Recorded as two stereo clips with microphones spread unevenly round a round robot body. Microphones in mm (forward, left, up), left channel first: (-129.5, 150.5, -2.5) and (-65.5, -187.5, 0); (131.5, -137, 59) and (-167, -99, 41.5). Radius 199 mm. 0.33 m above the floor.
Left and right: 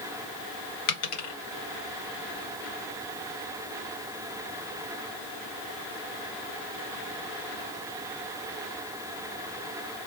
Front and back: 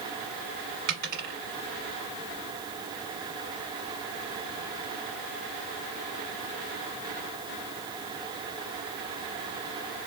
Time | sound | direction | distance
0.9 | a dropped coin | 125° left | 1.4 m